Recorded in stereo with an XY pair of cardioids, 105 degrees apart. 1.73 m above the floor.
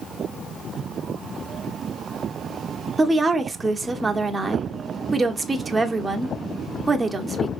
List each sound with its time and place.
3.0 s a woman speaking: 20° right, 0.9 m